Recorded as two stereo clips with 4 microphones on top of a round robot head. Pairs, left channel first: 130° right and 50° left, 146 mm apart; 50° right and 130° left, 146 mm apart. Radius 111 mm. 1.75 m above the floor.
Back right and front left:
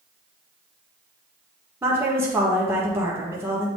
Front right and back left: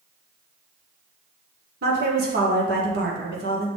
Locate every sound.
1.8 s a woman speaking: 120° left, 1.4 m